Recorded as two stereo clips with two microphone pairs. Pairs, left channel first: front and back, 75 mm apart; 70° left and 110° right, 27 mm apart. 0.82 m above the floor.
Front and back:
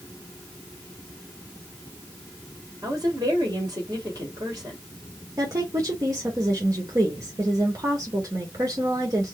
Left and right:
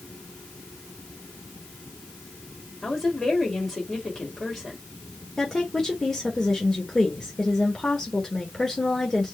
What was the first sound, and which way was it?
A woman speaking, 140° left.